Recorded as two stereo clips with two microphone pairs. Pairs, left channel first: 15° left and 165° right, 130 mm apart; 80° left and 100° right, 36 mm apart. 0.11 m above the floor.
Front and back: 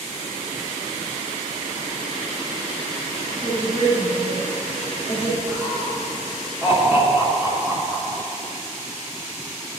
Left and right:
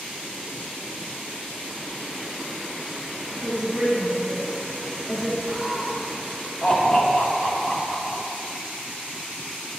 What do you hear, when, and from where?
3.4 s a woman speaking: 25° right, 2 m
5.5 s laughter: 170° right, 1.5 m